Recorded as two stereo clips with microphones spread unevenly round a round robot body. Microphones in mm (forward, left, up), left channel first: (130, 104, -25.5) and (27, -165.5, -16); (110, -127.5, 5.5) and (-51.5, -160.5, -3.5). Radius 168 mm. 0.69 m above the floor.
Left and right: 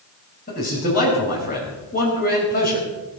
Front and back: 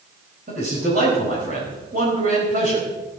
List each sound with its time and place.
0.5 s a man speaking: 135° left, 4 m